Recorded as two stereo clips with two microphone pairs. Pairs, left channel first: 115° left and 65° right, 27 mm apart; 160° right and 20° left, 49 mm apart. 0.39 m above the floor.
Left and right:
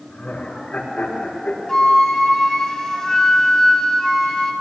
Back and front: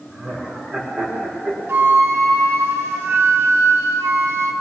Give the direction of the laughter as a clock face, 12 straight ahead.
9 o'clock.